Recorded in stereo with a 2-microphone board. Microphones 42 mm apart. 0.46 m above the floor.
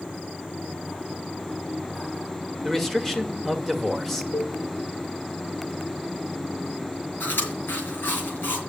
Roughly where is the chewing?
Left.